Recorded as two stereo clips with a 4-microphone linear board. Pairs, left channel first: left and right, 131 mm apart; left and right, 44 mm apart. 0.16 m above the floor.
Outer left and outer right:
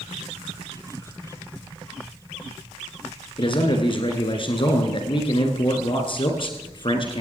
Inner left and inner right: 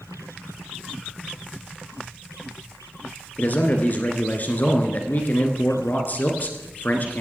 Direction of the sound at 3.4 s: 45° left (ahead or behind).